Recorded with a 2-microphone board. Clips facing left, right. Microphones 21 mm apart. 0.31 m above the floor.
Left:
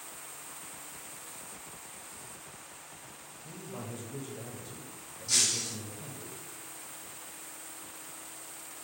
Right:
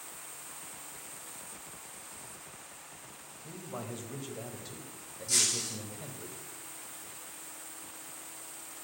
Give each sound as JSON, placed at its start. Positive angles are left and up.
{"t": 3.4, "sound": "a man speaking", "side_deg": -40, "distance_m": 1.3}
{"t": 5.3, "sound": "breaking glass", "side_deg": 20, "distance_m": 3.5}